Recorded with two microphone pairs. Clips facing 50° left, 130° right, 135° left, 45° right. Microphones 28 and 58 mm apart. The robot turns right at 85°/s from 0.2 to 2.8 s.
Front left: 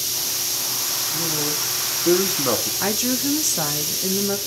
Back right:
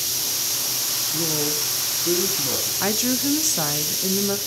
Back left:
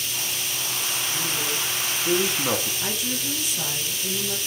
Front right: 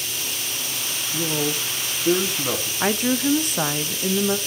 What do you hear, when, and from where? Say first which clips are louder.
1.1 s a man speaking: back right 1 dB, front right 8 dB; 65° right, 1.3 m; by 2.7 s 70° left, 1.3 m
2.8 s a woman speaking: even, front right 8 dB; 45° right, 0.6 m